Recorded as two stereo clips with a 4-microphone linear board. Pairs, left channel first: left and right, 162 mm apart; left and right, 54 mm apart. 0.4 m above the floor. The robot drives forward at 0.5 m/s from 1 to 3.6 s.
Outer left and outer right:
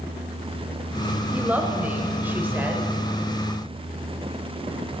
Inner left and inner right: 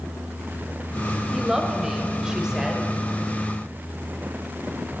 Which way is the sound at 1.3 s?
10° right (ahead or behind).